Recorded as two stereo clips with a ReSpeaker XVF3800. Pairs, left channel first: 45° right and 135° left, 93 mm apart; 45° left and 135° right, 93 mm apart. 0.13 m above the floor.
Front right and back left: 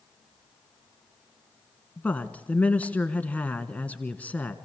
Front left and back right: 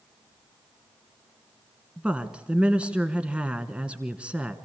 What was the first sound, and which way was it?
A woman speaking, 85° right.